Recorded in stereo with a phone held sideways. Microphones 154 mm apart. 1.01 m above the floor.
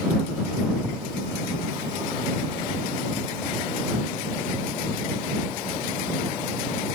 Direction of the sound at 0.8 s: 25° right (ahead or behind).